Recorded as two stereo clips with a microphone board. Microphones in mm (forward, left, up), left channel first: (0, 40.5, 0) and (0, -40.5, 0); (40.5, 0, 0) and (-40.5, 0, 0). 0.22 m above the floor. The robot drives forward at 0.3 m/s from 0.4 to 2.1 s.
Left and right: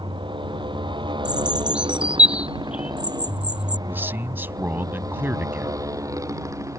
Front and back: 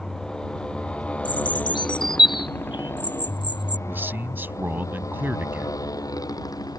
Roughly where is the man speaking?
Behind right.